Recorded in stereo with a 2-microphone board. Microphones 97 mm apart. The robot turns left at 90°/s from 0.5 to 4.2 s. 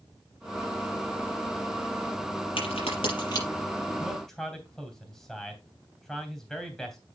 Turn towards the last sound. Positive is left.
turn(degrees=5)  # may be behind; listen again after turning